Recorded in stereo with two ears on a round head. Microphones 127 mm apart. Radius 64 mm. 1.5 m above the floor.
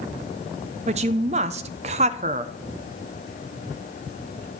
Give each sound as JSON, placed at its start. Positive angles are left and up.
{"t": 0.9, "sound": "a woman speaking", "side_deg": -45, "distance_m": 0.6}